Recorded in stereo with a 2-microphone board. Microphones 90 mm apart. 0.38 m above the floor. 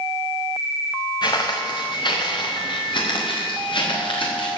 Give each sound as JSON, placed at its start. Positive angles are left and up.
{"t": 1.2, "sound": "footsteps", "side_deg": 50, "distance_m": 1.9}